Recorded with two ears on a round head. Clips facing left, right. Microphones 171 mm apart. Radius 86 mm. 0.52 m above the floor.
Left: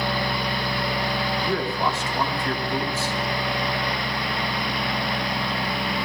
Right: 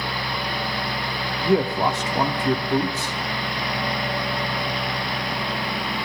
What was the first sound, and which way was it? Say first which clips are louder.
A man speaking: right 9 dB; 15° right (ahead or behind).